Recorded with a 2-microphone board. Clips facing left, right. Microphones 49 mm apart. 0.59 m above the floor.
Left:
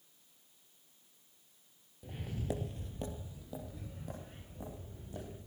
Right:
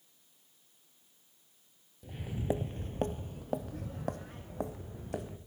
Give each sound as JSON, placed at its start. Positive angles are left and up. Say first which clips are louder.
{"t": 2.0, "sound": "footsteps", "louder": "right 5 dB", "side_deg": 0, "distance_m": 0.6}